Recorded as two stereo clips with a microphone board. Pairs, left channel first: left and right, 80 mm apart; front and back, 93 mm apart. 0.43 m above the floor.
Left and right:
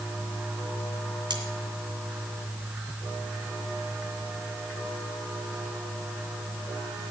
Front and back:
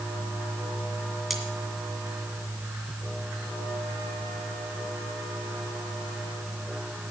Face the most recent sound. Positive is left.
turn(degrees=-90)